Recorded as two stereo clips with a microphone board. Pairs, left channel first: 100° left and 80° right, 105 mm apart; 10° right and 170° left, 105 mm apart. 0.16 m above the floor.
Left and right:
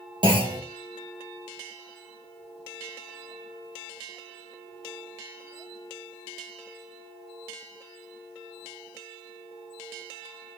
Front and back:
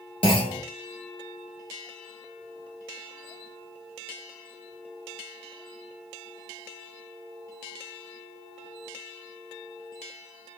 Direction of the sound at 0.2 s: 40° right.